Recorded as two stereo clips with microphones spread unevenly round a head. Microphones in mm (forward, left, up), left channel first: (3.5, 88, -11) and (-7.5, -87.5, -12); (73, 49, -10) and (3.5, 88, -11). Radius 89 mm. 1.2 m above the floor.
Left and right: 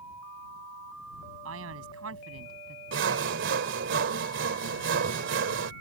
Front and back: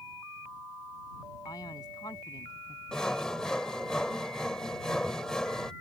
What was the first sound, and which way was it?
A man speaking, 100° right.